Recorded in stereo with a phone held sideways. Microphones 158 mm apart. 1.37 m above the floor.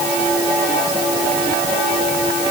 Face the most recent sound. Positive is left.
No sound to turn to.